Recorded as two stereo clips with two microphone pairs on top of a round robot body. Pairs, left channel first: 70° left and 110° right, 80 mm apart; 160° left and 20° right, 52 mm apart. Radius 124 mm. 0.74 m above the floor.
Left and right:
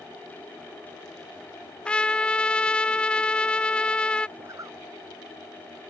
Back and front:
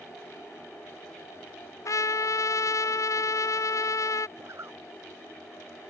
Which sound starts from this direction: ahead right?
A zipper, at 4.4 s.